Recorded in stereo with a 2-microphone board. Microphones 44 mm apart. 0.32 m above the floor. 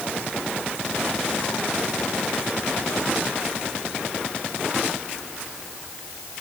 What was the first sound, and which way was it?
Only background noise.